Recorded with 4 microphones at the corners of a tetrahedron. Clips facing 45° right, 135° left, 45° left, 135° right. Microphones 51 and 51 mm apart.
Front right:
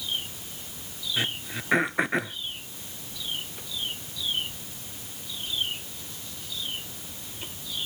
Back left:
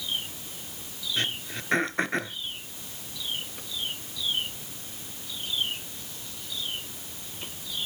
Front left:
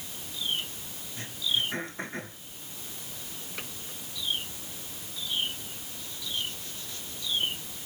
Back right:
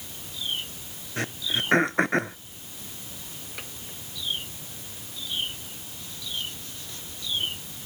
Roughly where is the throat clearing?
Behind right.